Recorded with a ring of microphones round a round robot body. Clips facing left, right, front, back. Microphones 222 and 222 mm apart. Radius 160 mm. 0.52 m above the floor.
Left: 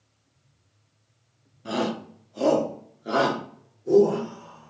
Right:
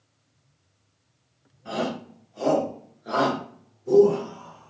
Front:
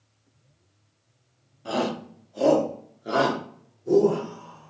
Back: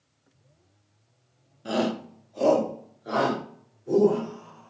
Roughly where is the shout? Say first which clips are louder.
Left 2 dB, back 1 dB; behind left.